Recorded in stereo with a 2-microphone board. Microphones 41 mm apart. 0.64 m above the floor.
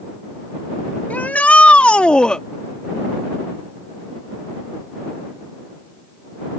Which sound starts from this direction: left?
A shout, at 1.1 s.